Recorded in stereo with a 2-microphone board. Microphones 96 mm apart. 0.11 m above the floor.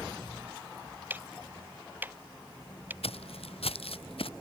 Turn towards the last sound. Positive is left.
turn(degrees=70)  # may be behind; listen again after turning